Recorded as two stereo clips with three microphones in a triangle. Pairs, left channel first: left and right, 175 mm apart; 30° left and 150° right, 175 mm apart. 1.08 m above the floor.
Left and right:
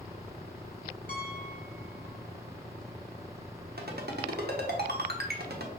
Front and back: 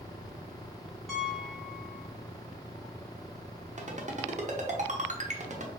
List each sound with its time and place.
1.1 s a piano: 115° left, 1.3 m
3.8 s a ringtone: 105° right, 0.8 m